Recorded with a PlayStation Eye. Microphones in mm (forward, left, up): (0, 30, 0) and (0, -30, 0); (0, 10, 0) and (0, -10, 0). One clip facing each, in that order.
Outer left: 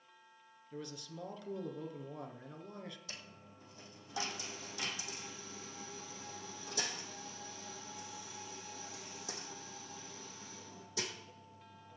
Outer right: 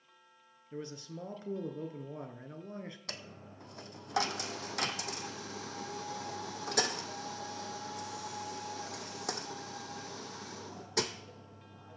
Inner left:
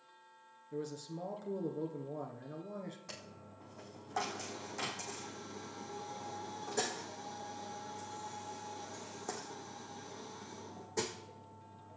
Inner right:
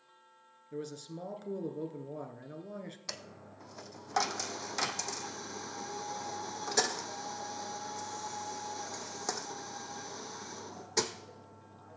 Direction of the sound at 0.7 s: 30° right (ahead or behind).